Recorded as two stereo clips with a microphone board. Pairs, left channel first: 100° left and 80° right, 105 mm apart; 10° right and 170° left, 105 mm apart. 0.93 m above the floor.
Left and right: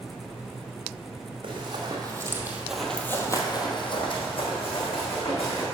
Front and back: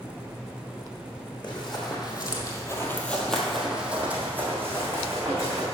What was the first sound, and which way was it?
Running footsteps, 45° right.